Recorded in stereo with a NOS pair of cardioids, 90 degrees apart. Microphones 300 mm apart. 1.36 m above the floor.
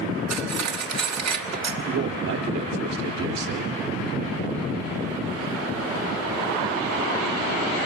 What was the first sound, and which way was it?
Cutlery clinking, 65° right.